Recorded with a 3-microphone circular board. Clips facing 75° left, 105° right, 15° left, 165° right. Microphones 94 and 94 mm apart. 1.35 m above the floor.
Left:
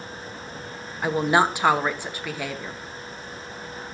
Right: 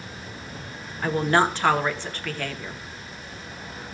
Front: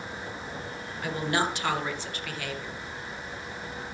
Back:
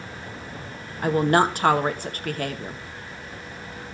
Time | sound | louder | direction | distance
1.0 | a woman speaking | left 1 dB, back 9 dB | 155° left | 1.1 m